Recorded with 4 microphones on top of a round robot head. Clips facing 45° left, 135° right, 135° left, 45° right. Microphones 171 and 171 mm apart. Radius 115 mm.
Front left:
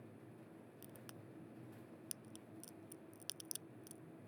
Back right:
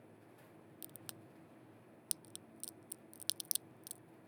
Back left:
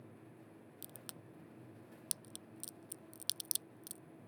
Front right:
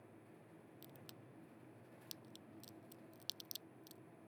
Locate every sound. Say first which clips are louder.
0.8 s a crack: even, back left 3 dB; 170° left